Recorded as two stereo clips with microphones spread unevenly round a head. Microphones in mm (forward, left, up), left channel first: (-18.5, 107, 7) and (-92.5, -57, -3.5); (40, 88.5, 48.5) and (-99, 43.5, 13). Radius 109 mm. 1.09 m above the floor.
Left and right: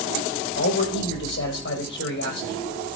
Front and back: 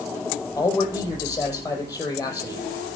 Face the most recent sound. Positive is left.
turn(degrees=85)